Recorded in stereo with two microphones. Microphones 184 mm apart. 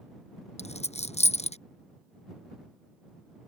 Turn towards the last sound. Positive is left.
turn(degrees=35)  # may be behind; listen again after turning